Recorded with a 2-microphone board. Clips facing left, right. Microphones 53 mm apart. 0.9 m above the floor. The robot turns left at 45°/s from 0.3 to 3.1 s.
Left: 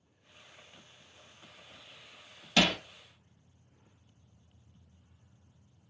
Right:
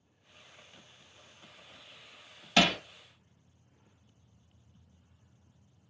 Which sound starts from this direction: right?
Hammering, at 2.6 s.